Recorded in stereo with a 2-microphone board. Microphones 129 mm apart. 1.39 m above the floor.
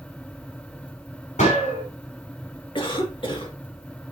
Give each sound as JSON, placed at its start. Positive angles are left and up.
{"t": 1.4, "sound": "a gunshot", "side_deg": 75, "distance_m": 5.0}
{"t": 2.8, "sound": "a cough", "side_deg": 40, "distance_m": 2.5}